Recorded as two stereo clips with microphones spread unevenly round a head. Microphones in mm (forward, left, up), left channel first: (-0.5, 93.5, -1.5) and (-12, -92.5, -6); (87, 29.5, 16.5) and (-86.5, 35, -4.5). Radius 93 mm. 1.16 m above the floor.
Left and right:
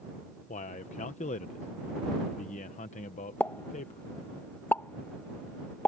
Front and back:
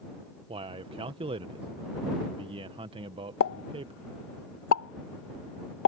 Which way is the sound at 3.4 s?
5° left.